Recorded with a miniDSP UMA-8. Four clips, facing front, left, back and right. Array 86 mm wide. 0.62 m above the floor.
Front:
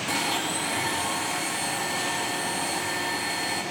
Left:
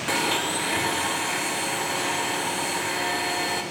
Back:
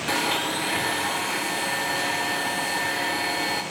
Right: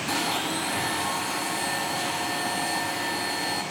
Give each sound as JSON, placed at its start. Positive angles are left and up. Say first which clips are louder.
{"t": 0.1, "sound": "a blender", "louder": "left 3 dB, back 3 dB", "azimuth_deg": 130, "distance_m": 1.6}